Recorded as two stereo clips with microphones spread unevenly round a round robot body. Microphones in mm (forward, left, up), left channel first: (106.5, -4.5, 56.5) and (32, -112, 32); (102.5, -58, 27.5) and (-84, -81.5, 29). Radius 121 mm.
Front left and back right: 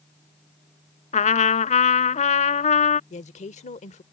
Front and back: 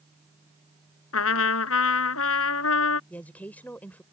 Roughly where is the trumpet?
Ahead left.